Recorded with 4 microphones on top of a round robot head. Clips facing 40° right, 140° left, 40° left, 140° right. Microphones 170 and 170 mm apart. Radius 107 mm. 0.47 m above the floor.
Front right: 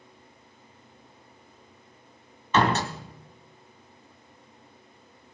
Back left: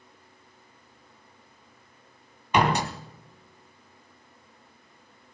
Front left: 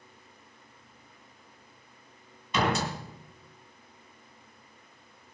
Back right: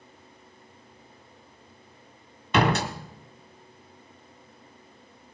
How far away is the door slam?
About 1.4 m.